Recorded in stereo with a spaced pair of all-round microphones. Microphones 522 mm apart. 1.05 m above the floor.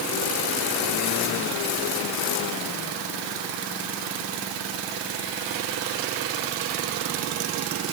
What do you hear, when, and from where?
Only background noise.